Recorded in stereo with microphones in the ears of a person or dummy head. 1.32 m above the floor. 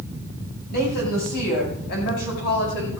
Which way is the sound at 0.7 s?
60° left (ahead or behind).